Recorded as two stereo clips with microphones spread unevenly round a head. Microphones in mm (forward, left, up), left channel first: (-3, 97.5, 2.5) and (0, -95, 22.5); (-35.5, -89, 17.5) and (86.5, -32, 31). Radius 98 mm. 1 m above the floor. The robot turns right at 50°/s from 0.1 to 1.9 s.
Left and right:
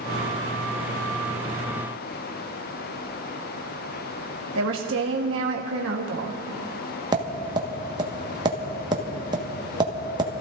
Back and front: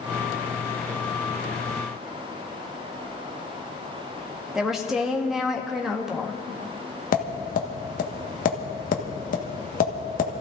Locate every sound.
4.5 s a woman speaking: 65° right, 1.5 m
7.1 s tapping: 160° right, 1.6 m